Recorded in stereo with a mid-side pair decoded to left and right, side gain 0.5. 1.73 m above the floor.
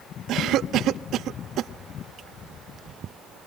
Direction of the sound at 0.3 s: 70° right.